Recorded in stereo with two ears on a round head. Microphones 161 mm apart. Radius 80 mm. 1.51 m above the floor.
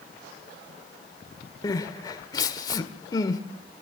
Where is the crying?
25° left (ahead or behind), 1.5 m.